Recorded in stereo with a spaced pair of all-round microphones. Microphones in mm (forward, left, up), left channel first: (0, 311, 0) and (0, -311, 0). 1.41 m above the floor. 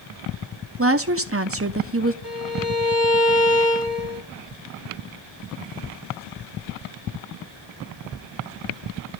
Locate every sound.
0.8 s a woman speaking: 20° right (ahead or behind), 0.8 m
2.2 s a violin: 40° left (ahead or behind), 3.5 m